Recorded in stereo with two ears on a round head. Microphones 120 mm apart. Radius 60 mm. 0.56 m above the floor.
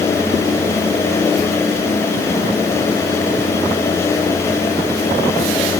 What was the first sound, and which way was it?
Only background noise.